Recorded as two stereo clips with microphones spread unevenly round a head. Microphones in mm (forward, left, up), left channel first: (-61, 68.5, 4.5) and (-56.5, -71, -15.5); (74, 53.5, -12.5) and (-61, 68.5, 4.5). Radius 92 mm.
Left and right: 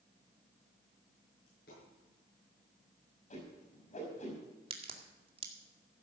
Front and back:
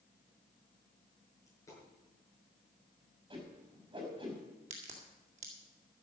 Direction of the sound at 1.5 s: 60° left.